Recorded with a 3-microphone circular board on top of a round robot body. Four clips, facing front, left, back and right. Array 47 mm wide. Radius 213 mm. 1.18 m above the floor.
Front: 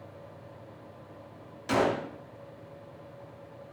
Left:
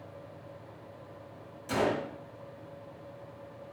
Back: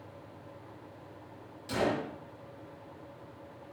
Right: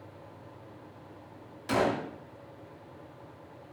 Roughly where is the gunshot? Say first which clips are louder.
Right 2 dB, front 4 dB; ahead right.